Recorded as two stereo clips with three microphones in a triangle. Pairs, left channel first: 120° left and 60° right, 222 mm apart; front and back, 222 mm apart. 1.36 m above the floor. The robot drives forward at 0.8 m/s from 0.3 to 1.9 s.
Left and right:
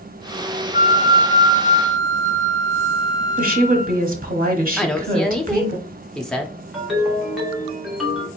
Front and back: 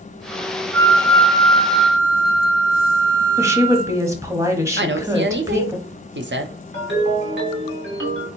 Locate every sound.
0.7 s a flute: 165° left, 0.6 m; by 4.0 s 175° left, 1.5 m
3.4 s a woman speaking: 105° right, 0.8 m
4.8 s a woman speaking: 155° right, 0.5 m
6.7 s a ringtone: 150° right, 1.3 m